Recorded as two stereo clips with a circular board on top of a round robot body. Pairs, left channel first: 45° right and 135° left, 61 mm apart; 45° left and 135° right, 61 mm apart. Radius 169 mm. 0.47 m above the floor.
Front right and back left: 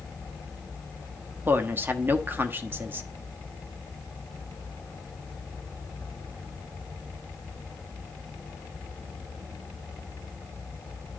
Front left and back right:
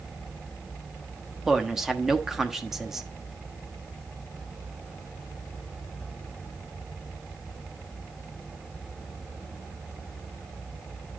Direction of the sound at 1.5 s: 145° left.